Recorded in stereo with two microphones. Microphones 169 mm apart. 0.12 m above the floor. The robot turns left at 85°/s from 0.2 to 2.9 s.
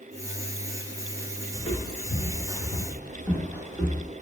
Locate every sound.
1.6 s footsteps: 20° left (ahead or behind), 0.7 m; by 4.1 s 15° right (ahead or behind), 1.5 m